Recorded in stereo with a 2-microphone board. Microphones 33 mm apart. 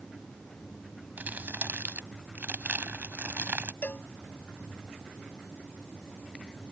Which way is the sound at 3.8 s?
65° left (ahead or behind).